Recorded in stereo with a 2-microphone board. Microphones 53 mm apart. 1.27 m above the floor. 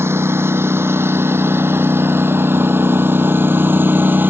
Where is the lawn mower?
50° right (ahead or behind); by 4.3 s 40° right (ahead or behind).